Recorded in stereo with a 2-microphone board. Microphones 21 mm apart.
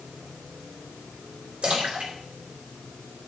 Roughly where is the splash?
Right.